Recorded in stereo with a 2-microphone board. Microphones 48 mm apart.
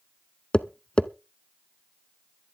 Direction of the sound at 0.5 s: 20° left (ahead or behind).